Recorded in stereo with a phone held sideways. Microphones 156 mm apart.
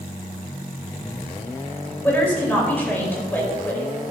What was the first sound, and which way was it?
A woman speaking, 10° left (ahead or behind).